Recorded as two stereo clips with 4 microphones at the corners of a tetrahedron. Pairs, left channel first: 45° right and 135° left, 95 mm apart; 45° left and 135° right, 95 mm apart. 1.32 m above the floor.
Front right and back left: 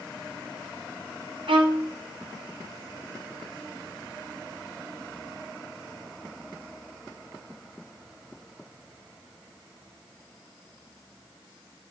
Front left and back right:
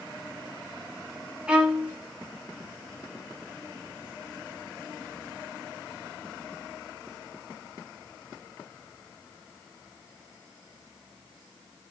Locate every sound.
1.5 s a violin: 145° left, 3 m